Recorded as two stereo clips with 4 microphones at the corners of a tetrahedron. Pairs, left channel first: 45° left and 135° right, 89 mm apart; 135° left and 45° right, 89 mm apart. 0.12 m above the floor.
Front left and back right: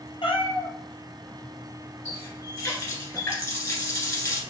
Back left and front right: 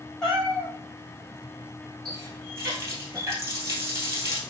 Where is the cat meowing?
50° left, 0.9 m.